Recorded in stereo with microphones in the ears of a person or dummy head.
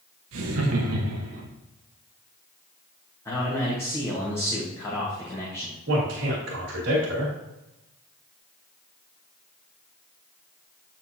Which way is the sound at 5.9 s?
65° right (ahead or behind).